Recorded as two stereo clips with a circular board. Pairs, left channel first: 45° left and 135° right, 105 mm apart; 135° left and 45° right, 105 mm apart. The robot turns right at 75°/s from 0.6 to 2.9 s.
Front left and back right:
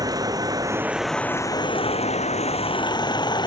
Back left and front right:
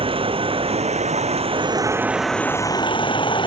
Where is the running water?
80° right; by 3.5 s 90° left.